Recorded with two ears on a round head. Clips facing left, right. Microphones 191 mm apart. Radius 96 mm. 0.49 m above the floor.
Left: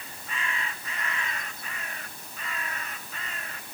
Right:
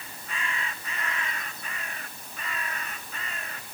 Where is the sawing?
No sawing in this recording.